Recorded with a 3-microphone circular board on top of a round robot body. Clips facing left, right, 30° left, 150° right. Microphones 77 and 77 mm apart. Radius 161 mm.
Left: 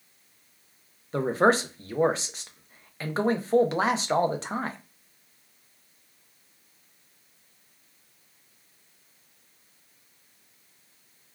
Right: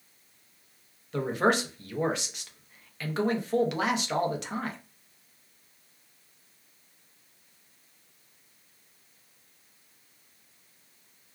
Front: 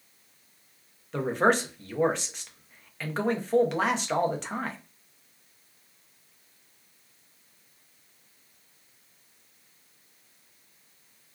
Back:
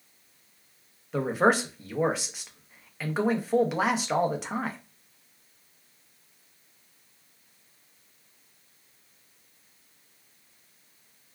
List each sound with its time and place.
1.1 s a man speaking: 130° left, 0.7 m